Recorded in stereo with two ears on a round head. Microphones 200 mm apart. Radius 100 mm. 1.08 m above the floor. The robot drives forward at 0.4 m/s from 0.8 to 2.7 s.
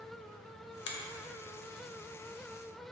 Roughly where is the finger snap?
Left.